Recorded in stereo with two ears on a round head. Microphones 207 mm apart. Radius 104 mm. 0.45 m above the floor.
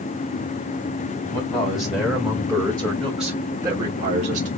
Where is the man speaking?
20° left (ahead or behind), 3 m; by 4.5 s 35° right (ahead or behind), 1.4 m.